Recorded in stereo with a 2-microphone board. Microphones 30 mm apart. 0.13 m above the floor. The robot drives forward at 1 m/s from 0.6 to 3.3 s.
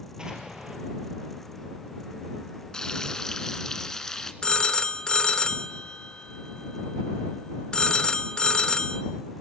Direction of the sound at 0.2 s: 30° right (ahead or behind).